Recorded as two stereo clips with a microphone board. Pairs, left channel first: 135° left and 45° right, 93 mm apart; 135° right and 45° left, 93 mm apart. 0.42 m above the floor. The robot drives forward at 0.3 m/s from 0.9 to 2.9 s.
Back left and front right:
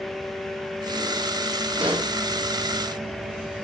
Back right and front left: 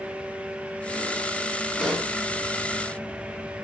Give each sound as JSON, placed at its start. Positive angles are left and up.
{"t": 1.8, "sound": "a pop", "azimuth_deg": -50, "distance_m": 0.8}